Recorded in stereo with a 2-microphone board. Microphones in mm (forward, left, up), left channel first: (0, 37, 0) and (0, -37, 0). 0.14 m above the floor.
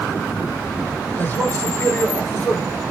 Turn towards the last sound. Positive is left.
turn(degrees=30)  # may be behind; listen again after turning